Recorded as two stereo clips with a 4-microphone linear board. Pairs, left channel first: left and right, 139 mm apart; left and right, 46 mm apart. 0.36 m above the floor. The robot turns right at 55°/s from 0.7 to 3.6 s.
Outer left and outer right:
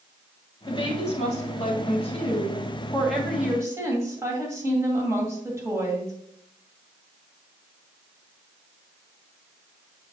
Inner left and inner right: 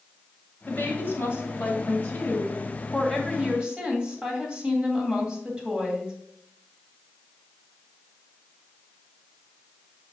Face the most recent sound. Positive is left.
turn(degrees=-155)